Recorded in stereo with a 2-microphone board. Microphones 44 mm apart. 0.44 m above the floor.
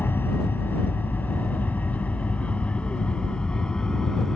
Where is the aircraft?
55° left (ahead or behind); by 4.4 s 15° left (ahead or behind).